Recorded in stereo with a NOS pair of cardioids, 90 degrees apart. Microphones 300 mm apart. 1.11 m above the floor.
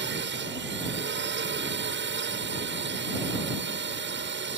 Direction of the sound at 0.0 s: 40° right.